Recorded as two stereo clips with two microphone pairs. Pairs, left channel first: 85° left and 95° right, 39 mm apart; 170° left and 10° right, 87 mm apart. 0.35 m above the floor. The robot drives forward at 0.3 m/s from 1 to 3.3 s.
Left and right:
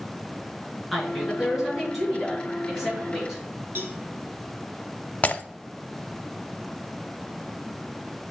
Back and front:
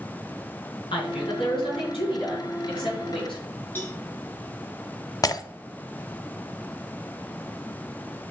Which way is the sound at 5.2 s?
135° left.